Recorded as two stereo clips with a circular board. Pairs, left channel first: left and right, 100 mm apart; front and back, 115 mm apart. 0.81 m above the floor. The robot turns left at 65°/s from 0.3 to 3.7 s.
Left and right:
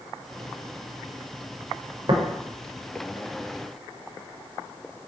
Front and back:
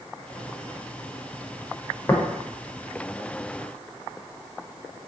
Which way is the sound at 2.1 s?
60° right.